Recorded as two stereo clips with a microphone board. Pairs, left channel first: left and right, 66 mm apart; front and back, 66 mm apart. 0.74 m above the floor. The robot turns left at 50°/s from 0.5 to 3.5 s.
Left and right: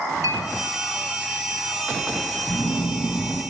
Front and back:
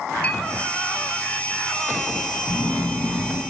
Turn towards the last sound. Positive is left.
turn(degrees=20)